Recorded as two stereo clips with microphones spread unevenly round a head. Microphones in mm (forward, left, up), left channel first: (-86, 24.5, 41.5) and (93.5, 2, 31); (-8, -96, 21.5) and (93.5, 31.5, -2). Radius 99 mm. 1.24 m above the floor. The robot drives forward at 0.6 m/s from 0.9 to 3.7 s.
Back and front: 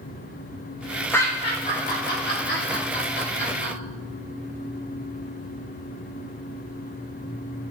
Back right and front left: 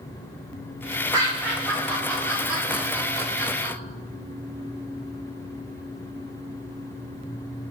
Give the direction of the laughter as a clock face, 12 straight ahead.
9 o'clock.